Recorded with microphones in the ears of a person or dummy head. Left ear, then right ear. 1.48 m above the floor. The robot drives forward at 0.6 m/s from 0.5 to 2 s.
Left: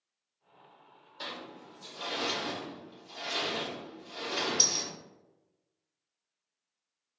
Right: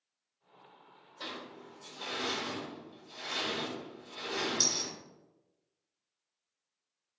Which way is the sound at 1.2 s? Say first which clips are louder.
Left 2 dB; 60° left (ahead or behind).